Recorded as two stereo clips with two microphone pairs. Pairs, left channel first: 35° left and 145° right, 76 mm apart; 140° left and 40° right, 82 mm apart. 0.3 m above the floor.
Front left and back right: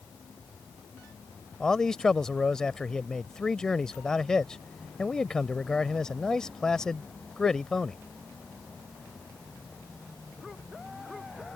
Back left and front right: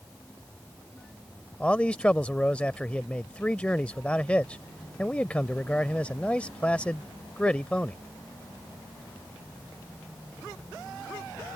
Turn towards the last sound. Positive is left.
turn(degrees=100)